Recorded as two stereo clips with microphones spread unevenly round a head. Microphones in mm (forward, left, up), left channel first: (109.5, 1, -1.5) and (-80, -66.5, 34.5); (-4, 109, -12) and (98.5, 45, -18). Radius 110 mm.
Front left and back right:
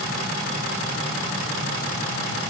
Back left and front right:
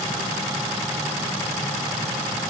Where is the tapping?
No tapping in this recording.